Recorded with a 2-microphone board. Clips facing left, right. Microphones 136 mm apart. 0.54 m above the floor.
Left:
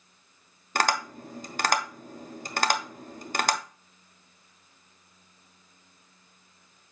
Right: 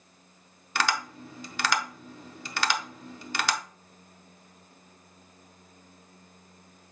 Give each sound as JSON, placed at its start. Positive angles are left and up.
{"t": 0.8, "sound": "tapping", "side_deg": 45, "distance_m": 0.6}